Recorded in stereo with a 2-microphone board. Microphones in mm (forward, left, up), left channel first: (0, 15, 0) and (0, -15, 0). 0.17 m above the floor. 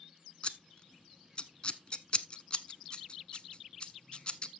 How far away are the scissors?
About 0.7 m.